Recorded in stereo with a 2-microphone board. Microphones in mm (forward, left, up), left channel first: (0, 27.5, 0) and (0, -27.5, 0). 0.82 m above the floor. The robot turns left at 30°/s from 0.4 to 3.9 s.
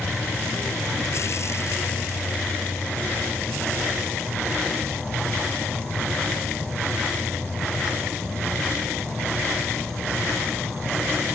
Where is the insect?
120° left, 1.2 m; by 11.3 s 15° left, 1.2 m.